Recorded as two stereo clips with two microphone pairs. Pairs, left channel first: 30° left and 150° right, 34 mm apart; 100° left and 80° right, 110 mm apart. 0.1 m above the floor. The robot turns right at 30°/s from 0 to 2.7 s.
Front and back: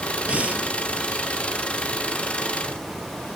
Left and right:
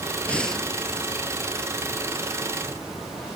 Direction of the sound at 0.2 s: 170° left.